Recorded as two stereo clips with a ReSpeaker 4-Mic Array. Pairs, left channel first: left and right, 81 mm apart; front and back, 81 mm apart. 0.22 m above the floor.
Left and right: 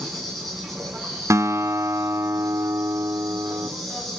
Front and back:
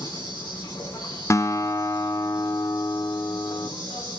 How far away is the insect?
About 6 m.